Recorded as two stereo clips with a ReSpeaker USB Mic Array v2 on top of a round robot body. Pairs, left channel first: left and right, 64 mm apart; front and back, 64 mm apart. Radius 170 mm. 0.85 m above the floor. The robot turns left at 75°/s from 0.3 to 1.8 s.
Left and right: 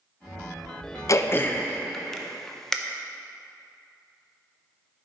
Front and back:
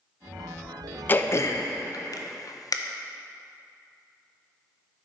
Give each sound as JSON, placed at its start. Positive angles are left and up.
{"t": 1.1, "sound": "throat clearing", "azimuth_deg": 60, "distance_m": 0.8}